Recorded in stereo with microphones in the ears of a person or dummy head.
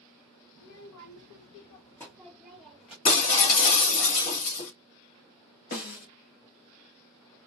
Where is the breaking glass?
45° left (ahead or behind), 1.4 m.